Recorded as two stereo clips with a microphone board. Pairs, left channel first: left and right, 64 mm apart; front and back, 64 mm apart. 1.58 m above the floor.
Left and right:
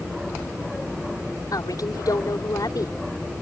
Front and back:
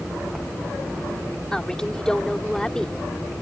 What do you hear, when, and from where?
1.5 s a woman speaking: 80° left